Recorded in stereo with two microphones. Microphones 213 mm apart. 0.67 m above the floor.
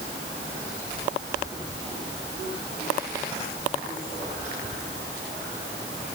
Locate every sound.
Only background noise.